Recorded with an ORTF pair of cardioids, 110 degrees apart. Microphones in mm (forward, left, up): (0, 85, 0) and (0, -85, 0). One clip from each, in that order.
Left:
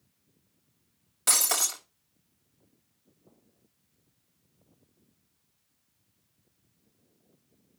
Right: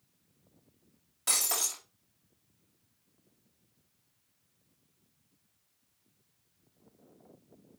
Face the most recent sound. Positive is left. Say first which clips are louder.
# left 4 dB
turn(degrees=35)